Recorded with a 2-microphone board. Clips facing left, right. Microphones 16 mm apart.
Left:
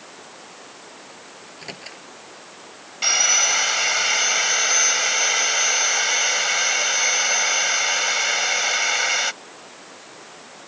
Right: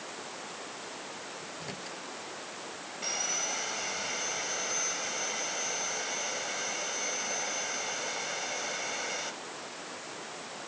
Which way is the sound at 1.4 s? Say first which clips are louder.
Left 3 dB; 40° left (ahead or behind).